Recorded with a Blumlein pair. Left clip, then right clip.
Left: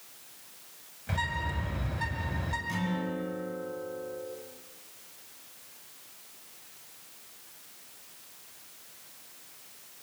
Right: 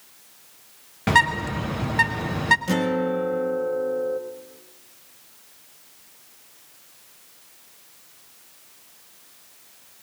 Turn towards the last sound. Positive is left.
turn(degrees=-45)